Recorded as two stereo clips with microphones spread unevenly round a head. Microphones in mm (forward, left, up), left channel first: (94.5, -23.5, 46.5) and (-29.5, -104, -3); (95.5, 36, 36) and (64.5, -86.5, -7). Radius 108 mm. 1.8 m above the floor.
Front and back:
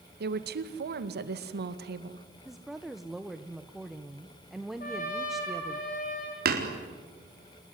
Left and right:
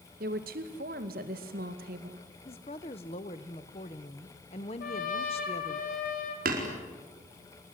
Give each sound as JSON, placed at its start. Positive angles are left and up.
{"t": 0.2, "sound": "a woman speaking", "azimuth_deg": -135, "distance_m": 2.0}
{"t": 2.5, "sound": "a woman speaking", "azimuth_deg": 115, "distance_m": 1.1}
{"t": 4.8, "sound": "a trumpet", "azimuth_deg": 85, "distance_m": 4.5}
{"t": 6.5, "sound": "hammering", "azimuth_deg": -135, "distance_m": 4.0}